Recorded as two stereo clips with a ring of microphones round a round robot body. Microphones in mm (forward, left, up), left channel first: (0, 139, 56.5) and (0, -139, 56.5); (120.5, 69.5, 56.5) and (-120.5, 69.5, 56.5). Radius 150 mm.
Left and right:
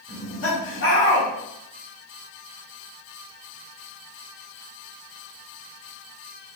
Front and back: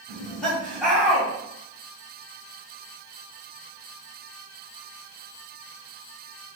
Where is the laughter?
85° left, 1.7 m.